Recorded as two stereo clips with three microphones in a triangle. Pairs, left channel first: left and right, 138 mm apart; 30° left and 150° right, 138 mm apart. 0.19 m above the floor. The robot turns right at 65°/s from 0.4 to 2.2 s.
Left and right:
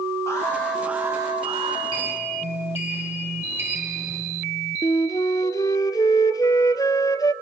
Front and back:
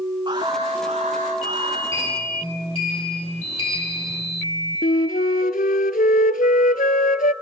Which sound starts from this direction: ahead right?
A sliding door, at 1.9 s.